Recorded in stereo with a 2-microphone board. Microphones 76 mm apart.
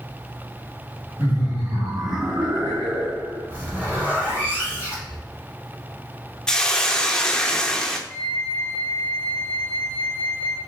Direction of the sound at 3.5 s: 25° right (ahead or behind).